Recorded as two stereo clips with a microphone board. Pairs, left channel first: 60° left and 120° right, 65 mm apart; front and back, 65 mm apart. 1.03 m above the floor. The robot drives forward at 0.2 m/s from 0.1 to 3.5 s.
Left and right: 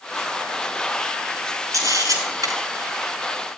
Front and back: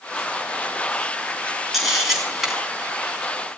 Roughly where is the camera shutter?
Right.